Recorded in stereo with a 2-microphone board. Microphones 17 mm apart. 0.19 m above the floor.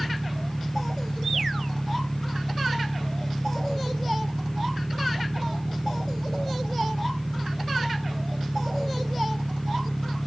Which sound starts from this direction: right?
An engine running, at 0.0 s.